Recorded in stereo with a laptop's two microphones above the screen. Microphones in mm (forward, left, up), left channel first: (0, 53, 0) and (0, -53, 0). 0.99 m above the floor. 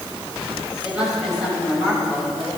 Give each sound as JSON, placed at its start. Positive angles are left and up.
{"t": 0.8, "sound": "a woman speaking", "side_deg": -10, "distance_m": 5.5}